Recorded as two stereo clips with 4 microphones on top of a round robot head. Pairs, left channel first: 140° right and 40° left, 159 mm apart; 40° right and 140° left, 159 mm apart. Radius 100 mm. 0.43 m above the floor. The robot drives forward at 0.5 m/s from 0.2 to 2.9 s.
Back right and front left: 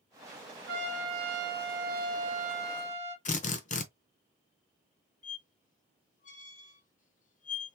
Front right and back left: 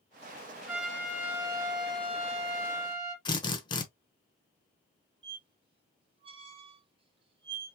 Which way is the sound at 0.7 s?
50° left.